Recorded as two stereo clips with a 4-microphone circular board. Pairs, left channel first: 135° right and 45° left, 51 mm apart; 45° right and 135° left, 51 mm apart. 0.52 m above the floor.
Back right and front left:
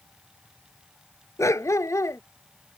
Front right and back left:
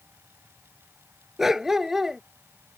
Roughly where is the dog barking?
Behind right.